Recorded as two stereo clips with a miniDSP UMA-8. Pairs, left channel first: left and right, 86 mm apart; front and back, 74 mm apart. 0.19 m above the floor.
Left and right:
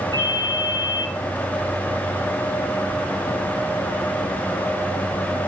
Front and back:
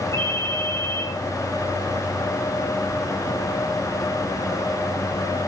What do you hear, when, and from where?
0.1 s a ringtone: 50° right, 5.5 m